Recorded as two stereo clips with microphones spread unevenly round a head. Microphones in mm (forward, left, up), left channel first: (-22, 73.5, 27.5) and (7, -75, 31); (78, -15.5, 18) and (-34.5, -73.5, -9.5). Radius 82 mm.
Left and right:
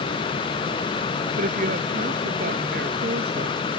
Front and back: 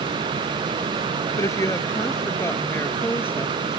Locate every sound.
1.4 s a woman speaking: 40° right; by 3.8 s 45° right